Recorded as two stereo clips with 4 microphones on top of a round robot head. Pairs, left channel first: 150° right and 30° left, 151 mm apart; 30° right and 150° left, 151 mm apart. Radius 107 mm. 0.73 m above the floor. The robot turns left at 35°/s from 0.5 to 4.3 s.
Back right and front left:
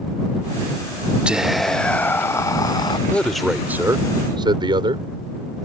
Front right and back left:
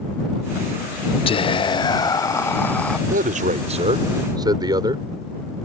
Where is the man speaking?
130° left; by 5.0 s 90° left.